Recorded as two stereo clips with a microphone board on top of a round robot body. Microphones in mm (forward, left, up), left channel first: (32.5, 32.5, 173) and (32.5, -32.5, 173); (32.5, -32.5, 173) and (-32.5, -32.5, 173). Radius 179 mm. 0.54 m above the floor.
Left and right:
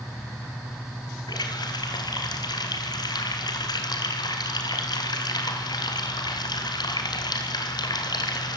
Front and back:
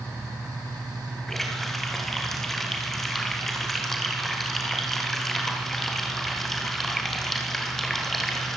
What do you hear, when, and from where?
1.3 s a running tap: 85° left, 2.5 m